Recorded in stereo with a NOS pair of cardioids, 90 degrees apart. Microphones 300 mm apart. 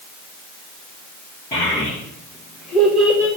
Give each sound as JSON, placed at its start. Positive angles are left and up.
{"t": 1.5, "sound": "a child speaking", "azimuth_deg": 30, "distance_m": 1.5}